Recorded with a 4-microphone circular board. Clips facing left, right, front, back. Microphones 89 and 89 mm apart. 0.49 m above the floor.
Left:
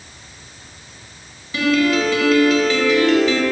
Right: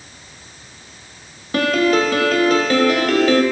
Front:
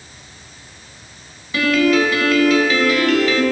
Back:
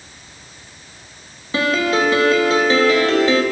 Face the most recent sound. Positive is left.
turn(degrees=-125)